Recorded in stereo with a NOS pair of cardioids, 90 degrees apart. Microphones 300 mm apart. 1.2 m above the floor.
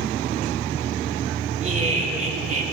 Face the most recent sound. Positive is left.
turn(degrees=-25)